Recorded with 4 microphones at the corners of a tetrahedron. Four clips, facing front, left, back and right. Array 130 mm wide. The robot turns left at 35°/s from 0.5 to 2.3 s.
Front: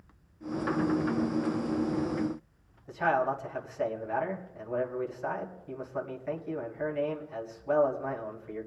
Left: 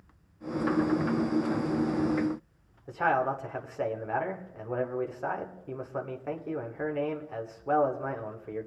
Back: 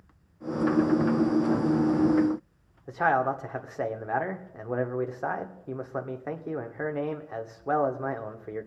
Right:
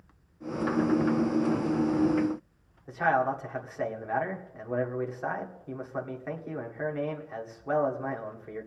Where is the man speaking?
170° left, 1.8 m.